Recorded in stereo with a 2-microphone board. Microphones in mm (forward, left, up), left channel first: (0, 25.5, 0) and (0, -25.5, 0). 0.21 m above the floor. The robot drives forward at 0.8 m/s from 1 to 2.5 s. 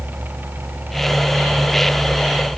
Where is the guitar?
No guitar in this recording.